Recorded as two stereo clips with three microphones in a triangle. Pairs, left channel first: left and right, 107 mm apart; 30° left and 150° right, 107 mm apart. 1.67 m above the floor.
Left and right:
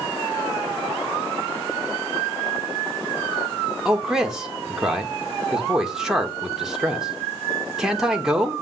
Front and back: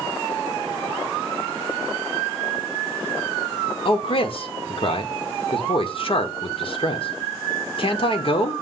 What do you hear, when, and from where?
3.9 s a man speaking: 5° right, 1.1 m